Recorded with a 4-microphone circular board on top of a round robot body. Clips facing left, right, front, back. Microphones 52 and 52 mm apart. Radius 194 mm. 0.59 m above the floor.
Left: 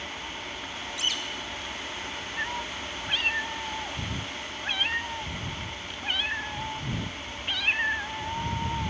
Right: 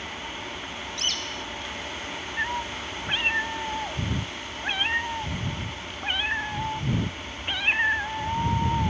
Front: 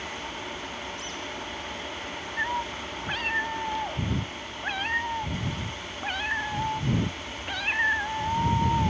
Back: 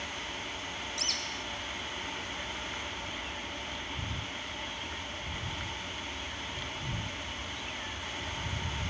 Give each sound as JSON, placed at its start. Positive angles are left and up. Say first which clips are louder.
{"t": 1.0, "sound": "a bird", "louder": "even, front 2 dB", "azimuth_deg": 170}
{"t": 2.4, "sound": "a cat meowing", "louder": "right 4 dB, front 9 dB", "azimuth_deg": -20}